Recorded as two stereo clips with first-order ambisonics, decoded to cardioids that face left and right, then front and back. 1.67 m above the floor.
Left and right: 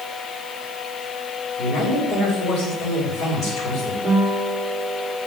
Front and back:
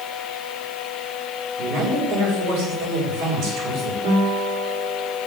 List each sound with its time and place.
1.6 s a man speaking: 150° left, 6 m
4.0 s a guitar: 175° right, 3.5 m